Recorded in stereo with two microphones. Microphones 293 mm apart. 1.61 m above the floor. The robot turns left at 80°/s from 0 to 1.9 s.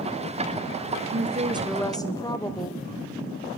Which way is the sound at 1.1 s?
130° right.